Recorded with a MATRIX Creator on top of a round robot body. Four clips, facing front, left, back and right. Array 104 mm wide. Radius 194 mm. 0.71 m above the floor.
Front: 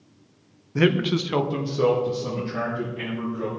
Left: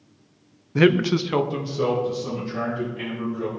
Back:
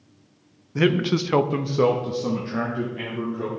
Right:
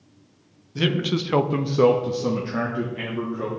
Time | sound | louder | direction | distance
0.8 | a man speaking | left 6 dB, even | 80° left | 0.8 m